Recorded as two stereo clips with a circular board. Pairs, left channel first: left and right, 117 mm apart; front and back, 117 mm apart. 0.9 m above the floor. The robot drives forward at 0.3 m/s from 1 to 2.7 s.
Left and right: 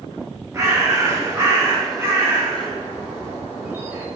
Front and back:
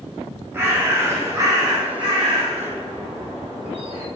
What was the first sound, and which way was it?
A bird, 125° right.